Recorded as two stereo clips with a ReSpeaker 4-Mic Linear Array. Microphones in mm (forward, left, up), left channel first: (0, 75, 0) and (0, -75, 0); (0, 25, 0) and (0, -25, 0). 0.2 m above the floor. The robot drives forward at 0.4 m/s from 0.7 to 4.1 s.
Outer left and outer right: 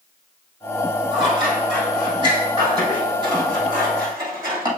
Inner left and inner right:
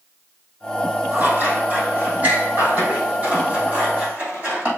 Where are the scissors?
40° right (ahead or behind), 4 m; by 4.7 s 30° right (ahead or behind), 5 m.